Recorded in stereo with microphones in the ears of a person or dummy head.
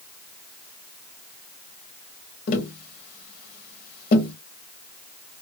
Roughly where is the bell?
I don't hear a bell.